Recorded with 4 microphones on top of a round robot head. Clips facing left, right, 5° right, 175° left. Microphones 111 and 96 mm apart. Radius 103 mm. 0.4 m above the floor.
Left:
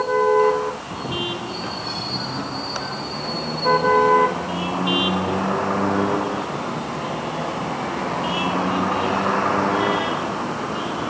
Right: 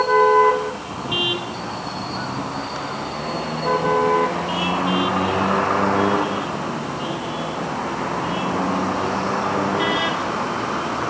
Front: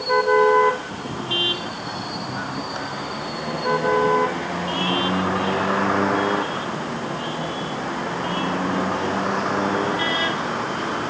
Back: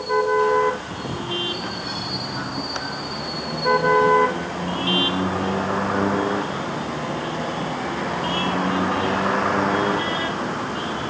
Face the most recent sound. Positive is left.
No sound to turn to.